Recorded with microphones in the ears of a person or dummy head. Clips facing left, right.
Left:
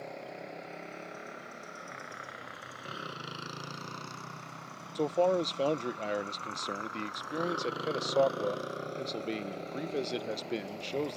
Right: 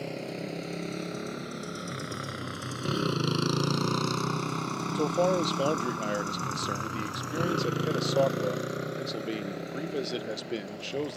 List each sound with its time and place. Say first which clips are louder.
0.0 s a motorcycle: right 7 dB; 40° right (ahead or behind); by 11.2 s 15° right (ahead or behind)
5.0 s a man speaking: right 1 dB; 10° right (ahead or behind)